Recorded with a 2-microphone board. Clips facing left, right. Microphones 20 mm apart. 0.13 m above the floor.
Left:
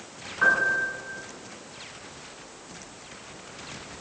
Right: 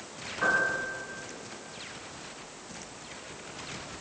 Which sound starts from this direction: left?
A piano, at 0.4 s.